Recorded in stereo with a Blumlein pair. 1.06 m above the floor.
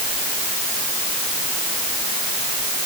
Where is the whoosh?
No whoosh in this recording.